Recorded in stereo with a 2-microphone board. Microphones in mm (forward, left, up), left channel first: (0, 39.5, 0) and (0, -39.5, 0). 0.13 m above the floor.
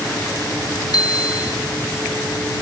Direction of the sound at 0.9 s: 55° left (ahead or behind).